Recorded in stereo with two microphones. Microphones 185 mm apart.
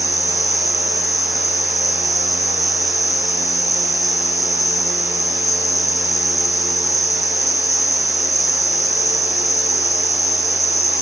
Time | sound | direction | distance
0.0 | an insect | 55° left (ahead or behind) | 9.5 m